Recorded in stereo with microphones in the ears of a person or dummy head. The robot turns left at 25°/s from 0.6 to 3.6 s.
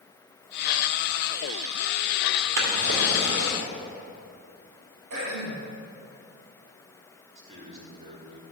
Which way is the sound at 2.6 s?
70° right (ahead or behind).